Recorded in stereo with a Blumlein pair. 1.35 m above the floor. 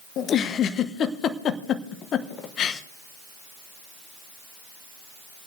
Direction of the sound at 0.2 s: 30° left.